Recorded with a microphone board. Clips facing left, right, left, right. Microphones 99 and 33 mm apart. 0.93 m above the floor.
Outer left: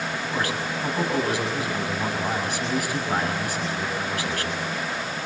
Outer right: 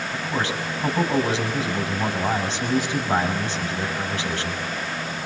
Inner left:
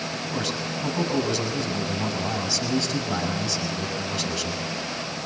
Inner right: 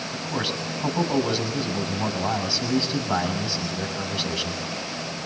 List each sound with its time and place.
0.1 s a man speaking: 25° right (ahead or behind), 6.5 m